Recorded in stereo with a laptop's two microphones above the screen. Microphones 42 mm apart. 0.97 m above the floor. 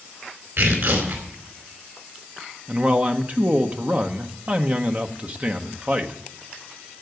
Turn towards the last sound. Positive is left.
turn(degrees=-35)  # may be behind; listen again after turning